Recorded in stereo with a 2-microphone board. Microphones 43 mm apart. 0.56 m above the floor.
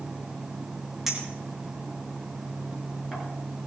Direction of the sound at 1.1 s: 10° right (ahead or behind).